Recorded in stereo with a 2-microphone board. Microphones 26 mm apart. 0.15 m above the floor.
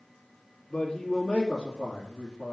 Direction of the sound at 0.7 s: 30° left (ahead or behind).